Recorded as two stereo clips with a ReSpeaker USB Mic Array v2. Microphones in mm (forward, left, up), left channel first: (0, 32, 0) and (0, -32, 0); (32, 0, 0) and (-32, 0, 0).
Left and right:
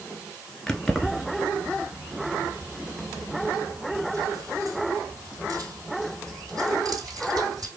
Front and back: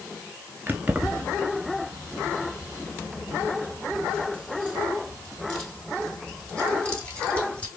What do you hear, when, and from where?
0.7 s keys jangling: 160° left, 1.0 m; by 7.7 s 65° right, 3.5 m